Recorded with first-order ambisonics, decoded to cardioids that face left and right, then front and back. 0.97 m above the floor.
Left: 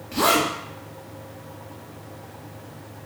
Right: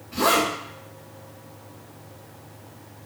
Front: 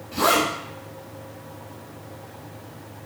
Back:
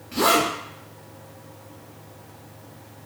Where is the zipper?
110° left, 2 m.